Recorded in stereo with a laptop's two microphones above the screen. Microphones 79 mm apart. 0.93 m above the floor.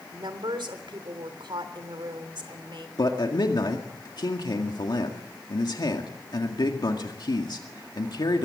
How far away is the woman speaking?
About 3 m.